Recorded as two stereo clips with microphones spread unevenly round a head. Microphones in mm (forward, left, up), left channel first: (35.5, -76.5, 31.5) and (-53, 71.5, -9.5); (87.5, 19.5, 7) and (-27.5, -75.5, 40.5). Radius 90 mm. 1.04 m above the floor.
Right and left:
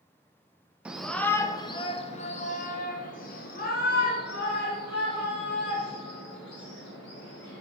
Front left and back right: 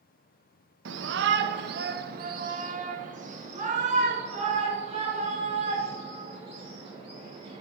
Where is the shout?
155° right, 0.7 m; by 7.6 s 85° right, 3.5 m.